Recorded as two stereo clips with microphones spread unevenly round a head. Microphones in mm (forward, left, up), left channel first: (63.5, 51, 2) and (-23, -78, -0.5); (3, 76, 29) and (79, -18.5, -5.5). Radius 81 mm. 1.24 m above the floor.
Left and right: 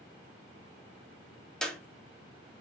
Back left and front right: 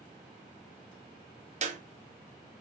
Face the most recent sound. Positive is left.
turn(degrees=-30)